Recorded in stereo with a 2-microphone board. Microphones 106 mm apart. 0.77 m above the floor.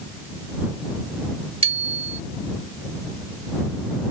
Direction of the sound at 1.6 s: 70° right (ahead or behind).